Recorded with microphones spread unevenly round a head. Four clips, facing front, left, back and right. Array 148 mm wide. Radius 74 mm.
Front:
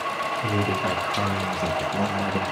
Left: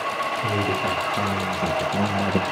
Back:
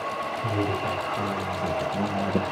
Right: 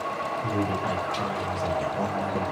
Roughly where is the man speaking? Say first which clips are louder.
Left 2 dB, front 1 dB; ahead left.